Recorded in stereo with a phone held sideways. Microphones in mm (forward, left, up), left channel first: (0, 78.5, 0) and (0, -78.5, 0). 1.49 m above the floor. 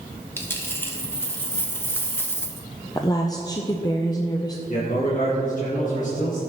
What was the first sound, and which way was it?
A dropped coin, 15° left (ahead or behind).